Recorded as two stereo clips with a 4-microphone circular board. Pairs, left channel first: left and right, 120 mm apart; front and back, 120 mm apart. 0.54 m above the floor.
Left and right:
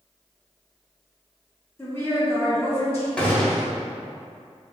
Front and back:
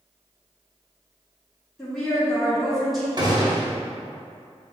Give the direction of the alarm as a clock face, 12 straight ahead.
I don't hear an alarm.